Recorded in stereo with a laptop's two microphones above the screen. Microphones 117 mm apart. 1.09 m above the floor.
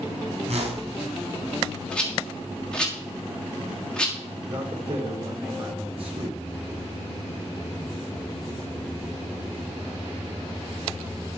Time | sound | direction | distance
0.5 | a whoosh | 70° right (ahead or behind) | 3.5 m
1.9 | a rattle | 10° left (ahead or behind) | 1.5 m
4.5 | a man speaking | 55° right (ahead or behind) | 3 m